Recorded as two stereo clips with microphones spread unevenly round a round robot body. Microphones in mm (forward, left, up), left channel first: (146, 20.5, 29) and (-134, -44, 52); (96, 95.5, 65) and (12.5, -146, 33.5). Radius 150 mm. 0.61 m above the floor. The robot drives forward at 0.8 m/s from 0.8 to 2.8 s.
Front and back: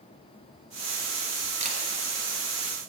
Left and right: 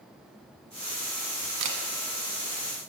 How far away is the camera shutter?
About 1.1 m.